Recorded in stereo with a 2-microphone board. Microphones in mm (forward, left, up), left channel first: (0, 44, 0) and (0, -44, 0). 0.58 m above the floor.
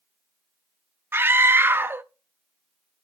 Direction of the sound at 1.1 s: 25° right (ahead or behind).